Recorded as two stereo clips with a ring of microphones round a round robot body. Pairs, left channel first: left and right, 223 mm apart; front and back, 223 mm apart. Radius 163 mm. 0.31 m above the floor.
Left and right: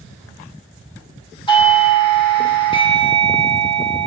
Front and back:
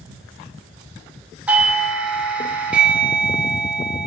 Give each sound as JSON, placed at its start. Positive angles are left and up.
{"t": 1.5, "sound": "a doorbell", "azimuth_deg": 110, "distance_m": 1.4}